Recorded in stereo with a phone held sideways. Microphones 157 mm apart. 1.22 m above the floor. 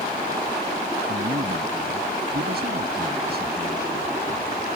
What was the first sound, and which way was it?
A man speaking, 75° right (ahead or behind).